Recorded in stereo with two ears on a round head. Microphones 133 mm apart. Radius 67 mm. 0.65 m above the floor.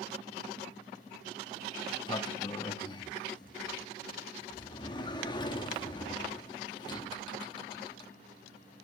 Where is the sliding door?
30° left (ahead or behind), 0.9 m.